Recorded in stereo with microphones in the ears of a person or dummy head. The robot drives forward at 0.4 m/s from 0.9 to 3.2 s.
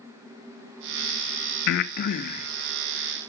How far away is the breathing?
About 0.6 m.